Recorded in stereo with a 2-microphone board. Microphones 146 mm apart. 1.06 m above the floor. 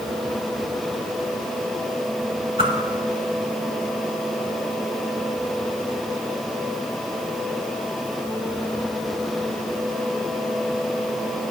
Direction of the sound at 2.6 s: 35° right (ahead or behind).